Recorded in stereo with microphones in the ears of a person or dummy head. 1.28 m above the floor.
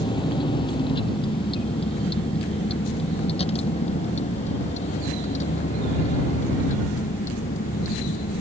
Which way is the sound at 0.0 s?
25° left (ahead or behind).